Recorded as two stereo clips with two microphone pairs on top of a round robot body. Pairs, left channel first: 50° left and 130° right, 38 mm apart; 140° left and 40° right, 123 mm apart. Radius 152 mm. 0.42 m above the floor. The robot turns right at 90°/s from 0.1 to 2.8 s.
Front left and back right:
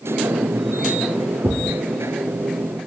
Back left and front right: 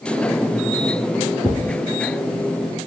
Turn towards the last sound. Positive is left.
turn(degrees=-10)